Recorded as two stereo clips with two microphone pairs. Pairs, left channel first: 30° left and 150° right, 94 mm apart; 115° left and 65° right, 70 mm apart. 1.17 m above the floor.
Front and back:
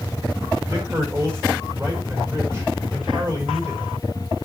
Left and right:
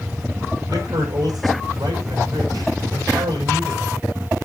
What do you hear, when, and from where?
0.7 s a man speaking: 95° right, 5 m